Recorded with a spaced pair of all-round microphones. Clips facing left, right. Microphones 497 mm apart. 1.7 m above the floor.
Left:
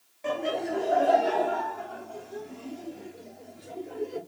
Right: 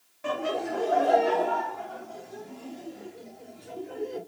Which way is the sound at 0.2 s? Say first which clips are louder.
Even; 30° right (ahead or behind).